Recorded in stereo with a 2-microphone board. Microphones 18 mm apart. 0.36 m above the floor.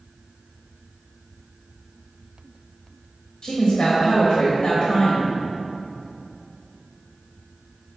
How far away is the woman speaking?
About 1.6 m.